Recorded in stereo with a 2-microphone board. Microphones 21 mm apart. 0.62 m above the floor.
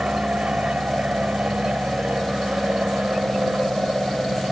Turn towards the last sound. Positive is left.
turn(degrees=-60)  # may be behind; listen again after turning